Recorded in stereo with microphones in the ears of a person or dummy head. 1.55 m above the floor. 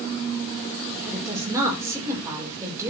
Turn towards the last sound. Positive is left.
turn(degrees=-20)  # may be behind; listen again after turning